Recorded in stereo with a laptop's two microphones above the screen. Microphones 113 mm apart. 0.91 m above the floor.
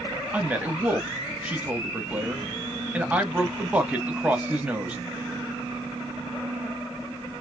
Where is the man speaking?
15° right (ahead or behind), 1.2 m.